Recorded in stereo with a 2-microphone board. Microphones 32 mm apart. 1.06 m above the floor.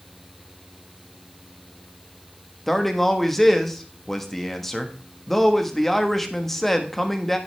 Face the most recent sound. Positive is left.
turn(degrees=10)  # may be behind; listen again after turning